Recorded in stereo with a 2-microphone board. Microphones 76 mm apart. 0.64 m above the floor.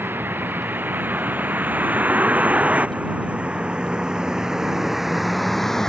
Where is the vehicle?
30° right (ahead or behind); by 5.9 s 5° left (ahead or behind).